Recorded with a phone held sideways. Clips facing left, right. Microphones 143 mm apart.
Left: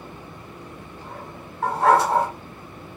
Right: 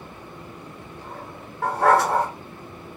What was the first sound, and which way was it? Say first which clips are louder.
A dog barking: even; 70° right (ahead or behind).